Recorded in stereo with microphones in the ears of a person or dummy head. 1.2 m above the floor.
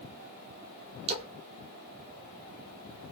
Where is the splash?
35° right (ahead or behind), 0.5 m.